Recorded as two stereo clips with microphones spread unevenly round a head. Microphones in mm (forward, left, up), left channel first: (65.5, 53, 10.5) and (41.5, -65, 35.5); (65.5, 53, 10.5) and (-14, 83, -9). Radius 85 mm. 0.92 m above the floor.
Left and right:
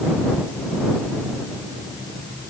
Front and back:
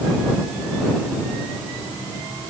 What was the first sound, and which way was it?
Only background noise.